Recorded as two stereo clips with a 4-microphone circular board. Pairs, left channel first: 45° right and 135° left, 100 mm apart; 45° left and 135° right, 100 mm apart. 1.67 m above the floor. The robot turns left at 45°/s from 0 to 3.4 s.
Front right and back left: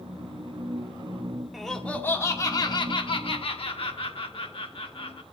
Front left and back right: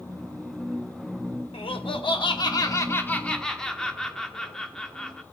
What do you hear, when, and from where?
1.5 s laughter: 45° left, 1.0 m; by 5.2 s 35° right, 1.0 m